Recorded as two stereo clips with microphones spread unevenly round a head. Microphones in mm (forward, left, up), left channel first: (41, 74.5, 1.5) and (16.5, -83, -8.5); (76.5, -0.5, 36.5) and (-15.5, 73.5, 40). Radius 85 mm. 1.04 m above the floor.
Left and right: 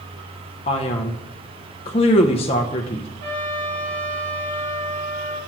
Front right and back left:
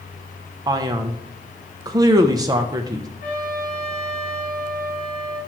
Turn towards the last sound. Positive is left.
turn(degrees=-85)